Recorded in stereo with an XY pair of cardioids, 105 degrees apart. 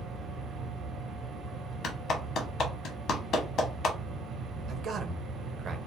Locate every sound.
0.0 s a machine running: 65° right, 0.8 m
1.8 s a clap: 65° left, 0.9 m
4.7 s a man speaking: 50° right, 0.9 m